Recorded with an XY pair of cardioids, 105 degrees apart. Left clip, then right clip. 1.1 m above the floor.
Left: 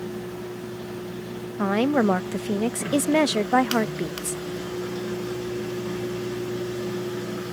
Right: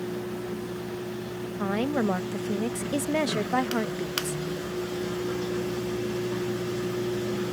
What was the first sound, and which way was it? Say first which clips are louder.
A woman speaking: left 6 dB; 40° left.